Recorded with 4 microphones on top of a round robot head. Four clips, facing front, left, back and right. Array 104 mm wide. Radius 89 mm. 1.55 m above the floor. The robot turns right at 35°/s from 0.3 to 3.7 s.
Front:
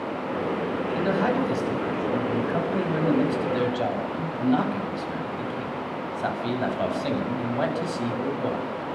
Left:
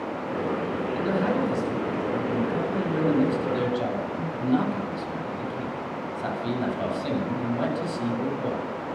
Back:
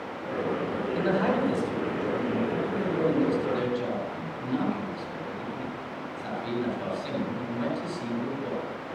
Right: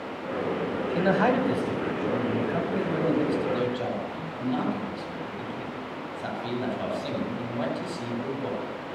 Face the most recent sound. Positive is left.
turn(degrees=10)